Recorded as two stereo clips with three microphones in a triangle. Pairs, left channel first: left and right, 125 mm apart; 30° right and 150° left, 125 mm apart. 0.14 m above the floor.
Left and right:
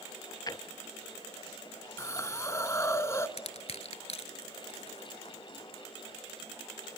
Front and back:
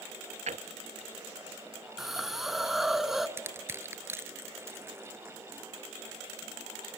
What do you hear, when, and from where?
0.5 s a drawer: 145° left, 0.7 m
2.0 s a hiss: 65° left, 0.8 m
3.4 s crushing: 85° left, 1.0 m